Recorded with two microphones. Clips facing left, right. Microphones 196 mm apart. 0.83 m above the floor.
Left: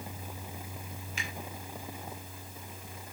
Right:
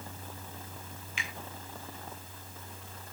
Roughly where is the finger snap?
Left.